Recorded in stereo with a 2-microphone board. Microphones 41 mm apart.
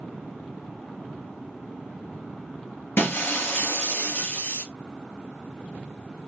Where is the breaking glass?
60° left (ahead or behind), 2.5 m.